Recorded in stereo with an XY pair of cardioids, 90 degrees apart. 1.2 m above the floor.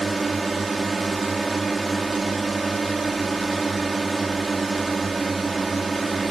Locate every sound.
0.0 s a drone: 25° right